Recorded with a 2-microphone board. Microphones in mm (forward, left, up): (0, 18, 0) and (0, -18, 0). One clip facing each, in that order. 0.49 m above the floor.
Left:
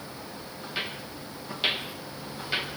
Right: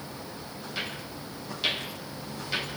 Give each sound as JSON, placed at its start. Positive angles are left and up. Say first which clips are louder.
{"t": 0.6, "sound": "footsteps", "louder": "left 1 dB", "side_deg": 20, "distance_m": 7.0}